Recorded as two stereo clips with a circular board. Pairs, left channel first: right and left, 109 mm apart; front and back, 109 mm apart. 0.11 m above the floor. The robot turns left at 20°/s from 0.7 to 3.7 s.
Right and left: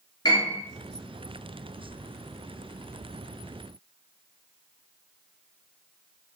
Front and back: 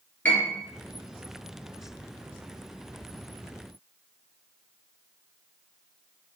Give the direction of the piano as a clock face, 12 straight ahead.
2 o'clock.